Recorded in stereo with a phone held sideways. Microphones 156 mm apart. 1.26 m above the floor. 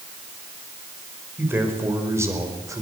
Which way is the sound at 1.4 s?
15° right (ahead or behind).